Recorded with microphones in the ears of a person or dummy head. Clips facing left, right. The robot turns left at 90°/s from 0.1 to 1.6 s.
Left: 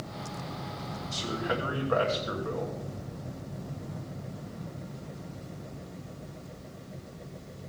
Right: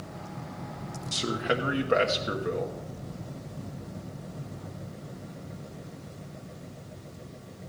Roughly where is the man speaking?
Right.